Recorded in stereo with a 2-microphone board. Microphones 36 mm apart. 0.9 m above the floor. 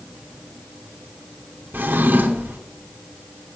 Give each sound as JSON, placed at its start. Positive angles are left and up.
{"t": 1.7, "sound": "a drawer", "side_deg": -75, "distance_m": 1.1}